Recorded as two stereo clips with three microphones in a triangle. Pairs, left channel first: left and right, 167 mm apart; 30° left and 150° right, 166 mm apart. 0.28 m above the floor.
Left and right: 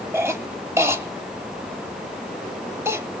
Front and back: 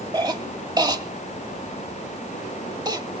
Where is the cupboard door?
I don't hear a cupboard door.